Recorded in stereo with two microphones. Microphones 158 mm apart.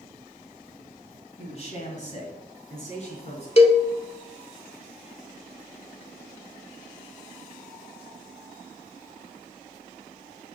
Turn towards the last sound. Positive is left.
turn(degrees=40)  # may be behind; listen again after turning